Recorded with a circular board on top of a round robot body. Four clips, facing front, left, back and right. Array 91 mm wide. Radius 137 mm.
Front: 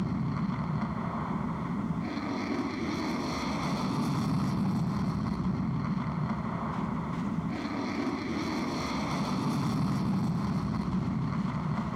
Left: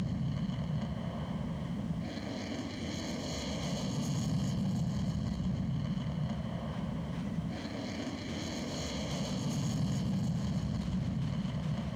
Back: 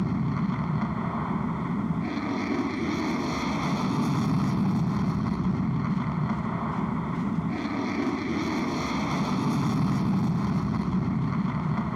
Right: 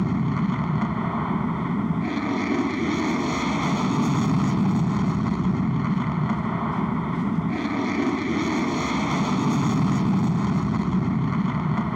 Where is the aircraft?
105° right.